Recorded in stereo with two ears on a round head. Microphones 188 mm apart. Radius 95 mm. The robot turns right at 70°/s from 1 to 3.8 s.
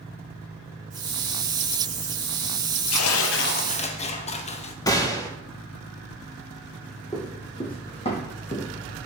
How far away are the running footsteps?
About 2.5 m.